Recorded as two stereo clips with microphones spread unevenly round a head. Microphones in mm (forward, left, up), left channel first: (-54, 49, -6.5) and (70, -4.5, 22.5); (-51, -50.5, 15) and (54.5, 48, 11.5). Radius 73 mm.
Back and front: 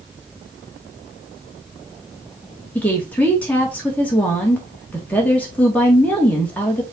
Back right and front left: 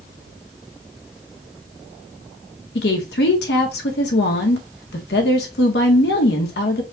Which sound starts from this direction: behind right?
A woman speaking, at 2.8 s.